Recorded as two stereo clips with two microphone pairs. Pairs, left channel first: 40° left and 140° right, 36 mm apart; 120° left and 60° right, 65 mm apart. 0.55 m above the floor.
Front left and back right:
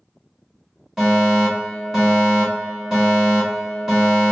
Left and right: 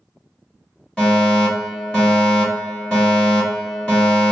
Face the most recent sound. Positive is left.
turn(degrees=165)